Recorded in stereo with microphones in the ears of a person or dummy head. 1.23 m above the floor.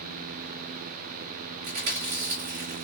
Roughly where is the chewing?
Right.